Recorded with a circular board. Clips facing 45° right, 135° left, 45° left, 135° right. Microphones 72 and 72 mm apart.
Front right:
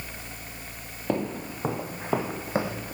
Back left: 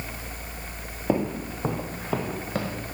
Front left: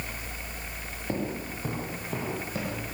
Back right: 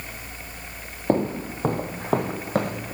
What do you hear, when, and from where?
1.1 s footsteps: 150° right, 2.5 m; by 3.0 s 105° right, 3.5 m